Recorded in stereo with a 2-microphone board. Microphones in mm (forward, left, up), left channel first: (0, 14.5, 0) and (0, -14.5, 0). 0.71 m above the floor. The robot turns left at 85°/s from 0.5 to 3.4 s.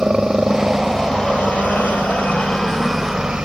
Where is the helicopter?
150° right; by 3.5 s 40° right.